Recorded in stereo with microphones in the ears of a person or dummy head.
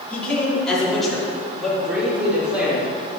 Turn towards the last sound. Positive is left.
turn(degrees=-10)  # may be behind; listen again after turning